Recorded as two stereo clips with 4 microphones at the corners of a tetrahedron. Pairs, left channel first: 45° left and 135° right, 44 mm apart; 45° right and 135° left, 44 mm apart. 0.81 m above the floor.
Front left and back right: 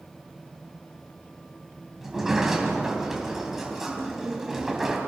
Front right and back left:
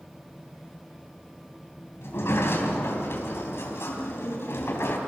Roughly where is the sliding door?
Ahead right.